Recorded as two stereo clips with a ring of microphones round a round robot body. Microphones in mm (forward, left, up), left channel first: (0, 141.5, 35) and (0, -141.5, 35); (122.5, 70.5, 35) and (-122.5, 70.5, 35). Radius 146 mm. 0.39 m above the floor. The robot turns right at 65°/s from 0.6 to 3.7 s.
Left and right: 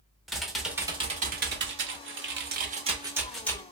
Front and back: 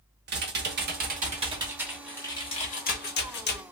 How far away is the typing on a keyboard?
About 0.7 m.